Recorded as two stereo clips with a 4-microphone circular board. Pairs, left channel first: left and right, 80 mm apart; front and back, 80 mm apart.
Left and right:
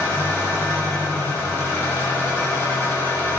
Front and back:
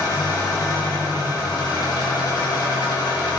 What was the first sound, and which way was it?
An engine running, 25° left.